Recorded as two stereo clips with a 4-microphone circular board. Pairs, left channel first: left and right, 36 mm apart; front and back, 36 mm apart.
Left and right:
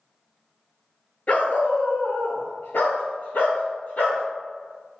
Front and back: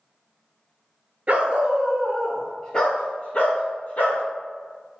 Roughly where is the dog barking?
Behind left.